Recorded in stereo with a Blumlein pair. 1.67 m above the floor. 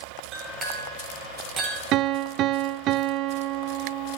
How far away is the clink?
About 4 m.